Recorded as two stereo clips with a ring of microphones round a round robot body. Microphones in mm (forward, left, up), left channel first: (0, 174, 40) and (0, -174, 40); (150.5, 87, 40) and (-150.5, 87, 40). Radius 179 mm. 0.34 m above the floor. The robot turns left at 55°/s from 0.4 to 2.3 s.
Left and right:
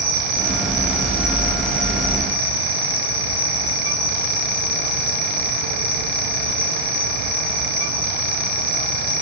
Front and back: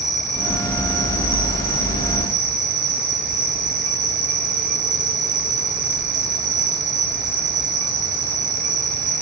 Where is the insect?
90° right, 2.0 m; by 9.2 s 165° left, 2.0 m.